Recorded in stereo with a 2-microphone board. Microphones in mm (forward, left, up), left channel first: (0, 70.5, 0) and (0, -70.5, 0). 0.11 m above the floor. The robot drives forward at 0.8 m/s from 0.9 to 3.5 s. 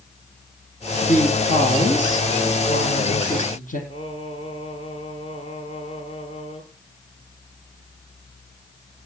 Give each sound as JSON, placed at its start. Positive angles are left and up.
{"t": 1.0, "sound": "a woman speaking", "side_deg": 60, "distance_m": 4.5}
{"t": 3.9, "sound": "singing", "side_deg": 40, "distance_m": 2.0}